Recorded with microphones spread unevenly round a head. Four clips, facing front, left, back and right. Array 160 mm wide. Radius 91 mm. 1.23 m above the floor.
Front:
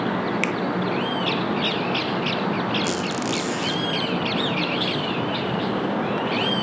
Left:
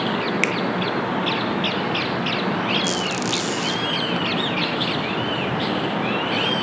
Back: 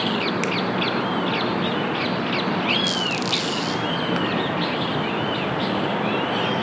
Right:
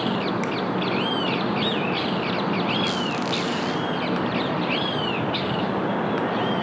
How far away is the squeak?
About 1.5 m.